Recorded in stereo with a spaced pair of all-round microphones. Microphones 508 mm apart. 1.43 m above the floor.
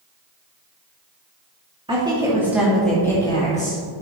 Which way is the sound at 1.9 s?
10° right (ahead or behind).